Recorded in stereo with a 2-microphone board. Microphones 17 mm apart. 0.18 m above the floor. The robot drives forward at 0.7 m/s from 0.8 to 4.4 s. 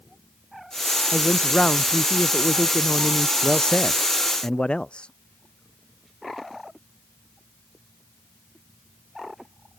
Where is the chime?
No chime in this recording.